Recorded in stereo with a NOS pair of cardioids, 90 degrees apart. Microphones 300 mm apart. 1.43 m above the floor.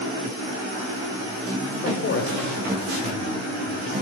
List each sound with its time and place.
1.8 s a man speaking: 50° left, 7 m